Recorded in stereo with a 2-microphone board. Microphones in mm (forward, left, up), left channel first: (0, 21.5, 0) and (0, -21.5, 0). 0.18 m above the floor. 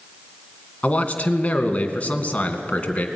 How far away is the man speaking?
About 1.9 m.